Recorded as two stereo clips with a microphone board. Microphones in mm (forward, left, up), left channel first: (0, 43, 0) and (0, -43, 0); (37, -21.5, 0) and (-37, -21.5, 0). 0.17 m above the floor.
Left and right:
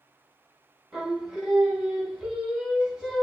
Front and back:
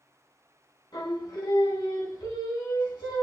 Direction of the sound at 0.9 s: Straight ahead.